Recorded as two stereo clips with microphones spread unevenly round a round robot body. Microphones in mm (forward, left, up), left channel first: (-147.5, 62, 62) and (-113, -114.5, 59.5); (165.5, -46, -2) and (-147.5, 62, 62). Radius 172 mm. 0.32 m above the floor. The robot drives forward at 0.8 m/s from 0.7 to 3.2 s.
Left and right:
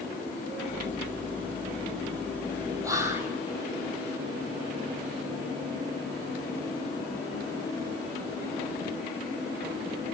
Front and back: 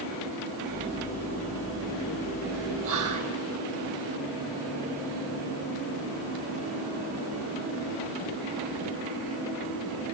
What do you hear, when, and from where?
2.8 s whispering: 145° right, 1.6 m; by 3.3 s 155° right, 1.8 m